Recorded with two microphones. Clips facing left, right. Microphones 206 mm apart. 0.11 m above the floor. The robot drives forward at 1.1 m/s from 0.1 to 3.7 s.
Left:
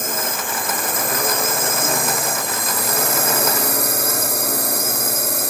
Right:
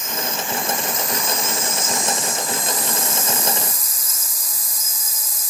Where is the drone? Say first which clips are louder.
Left 2 dB; 55° left (ahead or behind); by 5.5 s 70° left (ahead or behind).